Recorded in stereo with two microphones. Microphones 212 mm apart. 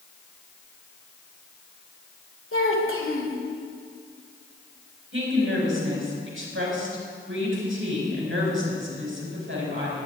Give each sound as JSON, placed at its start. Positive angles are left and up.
{"t": 2.5, "sound": "a child speaking", "side_deg": 75, "distance_m": 1.9}
{"t": 5.1, "sound": "a woman speaking", "side_deg": -75, "distance_m": 5.5}